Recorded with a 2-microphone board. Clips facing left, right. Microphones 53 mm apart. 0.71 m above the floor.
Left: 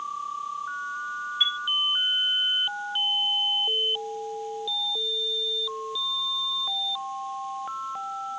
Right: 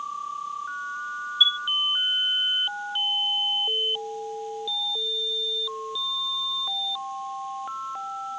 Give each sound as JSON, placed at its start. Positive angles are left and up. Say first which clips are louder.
{"t": 1.4, "sound": "a chime", "louder": "right 5 dB", "side_deg": 50}